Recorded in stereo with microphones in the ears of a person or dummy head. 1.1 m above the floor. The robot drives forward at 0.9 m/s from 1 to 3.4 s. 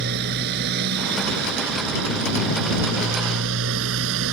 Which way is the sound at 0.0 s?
60° right (ahead or behind).